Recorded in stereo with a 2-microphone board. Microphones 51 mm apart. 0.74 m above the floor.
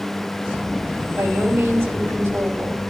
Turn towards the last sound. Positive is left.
turn(degrees=-70)  # may be behind; listen again after turning